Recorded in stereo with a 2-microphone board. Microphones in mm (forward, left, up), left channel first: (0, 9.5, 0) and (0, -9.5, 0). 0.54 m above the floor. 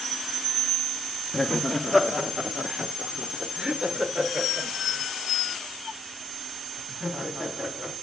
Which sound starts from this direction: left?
Laughter, at 1.3 s.